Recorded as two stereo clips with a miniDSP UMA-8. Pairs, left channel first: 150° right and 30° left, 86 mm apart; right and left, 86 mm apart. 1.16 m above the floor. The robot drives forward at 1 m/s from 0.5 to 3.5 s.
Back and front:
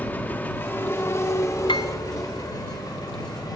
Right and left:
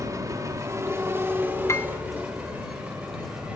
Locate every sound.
0.0 s an engine running: 140° left, 1.6 m; by 3.6 s 165° left, 4.5 m
1.7 s a piano: 145° right, 0.6 m; by 1.9 s 155° right, 0.8 m